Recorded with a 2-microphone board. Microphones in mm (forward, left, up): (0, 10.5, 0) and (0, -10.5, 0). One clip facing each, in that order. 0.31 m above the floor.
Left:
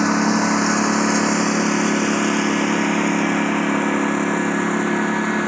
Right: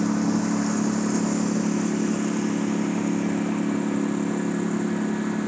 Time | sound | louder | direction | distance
0.0 | a lawn mower | left 6 dB | 55° left (ahead or behind) | ?